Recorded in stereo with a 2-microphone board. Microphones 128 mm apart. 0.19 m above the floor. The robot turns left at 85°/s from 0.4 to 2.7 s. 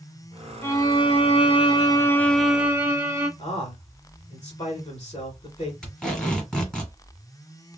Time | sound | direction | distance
0.6 | a violin | 155° left | 0.8 m
3.4 | a man speaking | 45° left (ahead or behind) | 1.4 m
5.8 | tape being pulled | 5° left (ahead or behind) | 1.9 m